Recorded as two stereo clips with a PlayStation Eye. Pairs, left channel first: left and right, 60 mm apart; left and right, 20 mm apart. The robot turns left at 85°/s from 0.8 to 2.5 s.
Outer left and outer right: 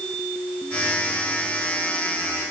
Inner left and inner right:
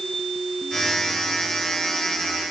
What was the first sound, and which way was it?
Only background noise.